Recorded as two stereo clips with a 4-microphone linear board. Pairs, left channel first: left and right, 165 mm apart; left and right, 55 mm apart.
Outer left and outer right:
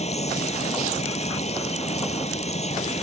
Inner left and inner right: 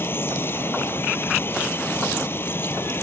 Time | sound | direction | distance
0.0 | running water | 45° left (ahead or behind) | ?